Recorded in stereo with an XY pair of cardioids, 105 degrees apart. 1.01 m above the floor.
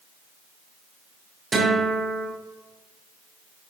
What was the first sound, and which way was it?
A guitar, 40° right.